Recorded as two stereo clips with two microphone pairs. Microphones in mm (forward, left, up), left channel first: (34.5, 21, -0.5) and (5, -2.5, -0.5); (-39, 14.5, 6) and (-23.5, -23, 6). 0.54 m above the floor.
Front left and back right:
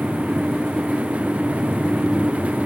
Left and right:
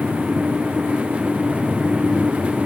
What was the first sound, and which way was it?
Only background noise.